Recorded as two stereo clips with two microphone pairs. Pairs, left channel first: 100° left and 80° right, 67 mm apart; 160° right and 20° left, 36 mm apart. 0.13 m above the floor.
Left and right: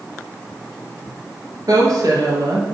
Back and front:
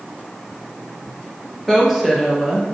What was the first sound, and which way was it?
A woman speaking, 65° right.